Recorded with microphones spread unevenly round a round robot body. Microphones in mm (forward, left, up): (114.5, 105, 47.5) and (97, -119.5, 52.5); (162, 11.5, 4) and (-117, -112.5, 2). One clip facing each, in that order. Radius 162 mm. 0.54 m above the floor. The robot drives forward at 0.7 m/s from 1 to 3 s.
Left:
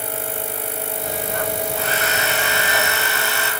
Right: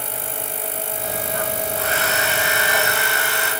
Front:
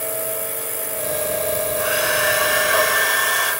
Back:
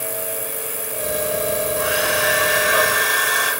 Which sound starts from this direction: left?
A hair dryer, at 1.8 s.